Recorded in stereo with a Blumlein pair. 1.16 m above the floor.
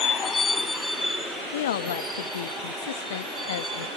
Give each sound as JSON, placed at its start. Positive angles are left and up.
{"t": 0.0, "sound": "a vehicle", "azimuth_deg": 25}
{"t": 1.5, "sound": "a woman speaking", "azimuth_deg": 60}